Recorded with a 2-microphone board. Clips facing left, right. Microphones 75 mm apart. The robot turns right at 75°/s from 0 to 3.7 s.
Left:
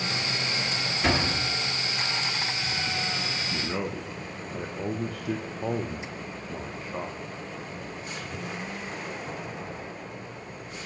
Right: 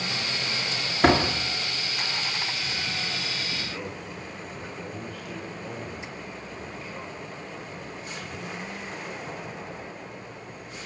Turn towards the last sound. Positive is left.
turn(degrees=75)  # may be behind; listen again after turning